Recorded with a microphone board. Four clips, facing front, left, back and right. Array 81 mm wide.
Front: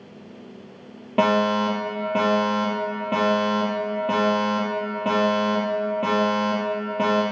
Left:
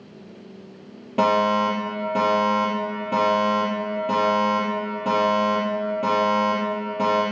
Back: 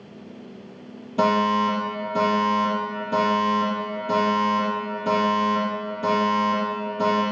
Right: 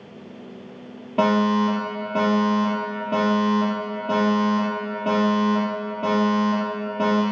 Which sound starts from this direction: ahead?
A fire alarm, at 1.2 s.